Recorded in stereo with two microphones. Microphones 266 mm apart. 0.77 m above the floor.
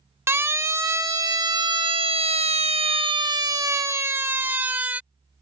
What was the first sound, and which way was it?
A siren, 10° right (ahead or behind).